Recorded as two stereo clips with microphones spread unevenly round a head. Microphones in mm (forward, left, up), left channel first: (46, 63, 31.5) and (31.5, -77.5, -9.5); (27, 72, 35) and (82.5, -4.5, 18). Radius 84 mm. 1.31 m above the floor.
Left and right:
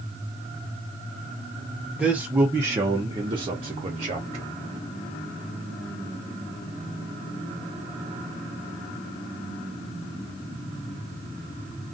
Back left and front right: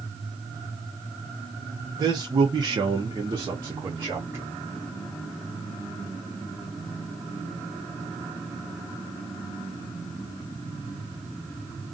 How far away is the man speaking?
About 0.9 m.